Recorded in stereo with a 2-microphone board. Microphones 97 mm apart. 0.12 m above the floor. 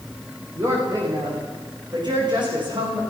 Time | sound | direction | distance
0.6 | a woman speaking | 35° right (ahead or behind) | 8.5 m